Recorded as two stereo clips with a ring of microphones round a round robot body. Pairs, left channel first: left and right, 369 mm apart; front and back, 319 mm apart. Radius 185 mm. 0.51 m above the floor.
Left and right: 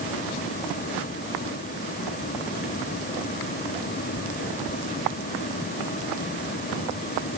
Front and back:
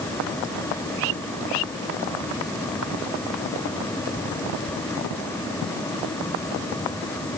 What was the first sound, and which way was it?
Only background noise.